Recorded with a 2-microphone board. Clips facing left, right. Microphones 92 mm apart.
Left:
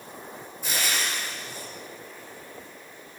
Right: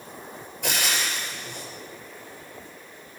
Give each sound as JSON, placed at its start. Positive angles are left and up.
{"t": 0.6, "sound": "frying", "side_deg": -75, "distance_m": 6.0}